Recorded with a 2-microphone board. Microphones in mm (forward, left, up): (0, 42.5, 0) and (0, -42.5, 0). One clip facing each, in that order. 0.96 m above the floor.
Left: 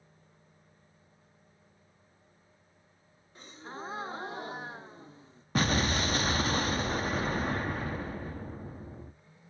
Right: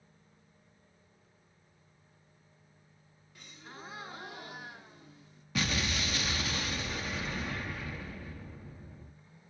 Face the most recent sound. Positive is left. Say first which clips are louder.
# left 5 dB
turn(degrees=40)  # may be behind; listen again after turning